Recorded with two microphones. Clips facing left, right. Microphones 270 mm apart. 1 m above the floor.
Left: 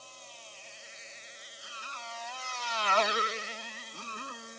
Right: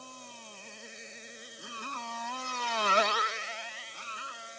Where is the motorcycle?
60° right (ahead or behind); by 4.6 s 55° left (ahead or behind).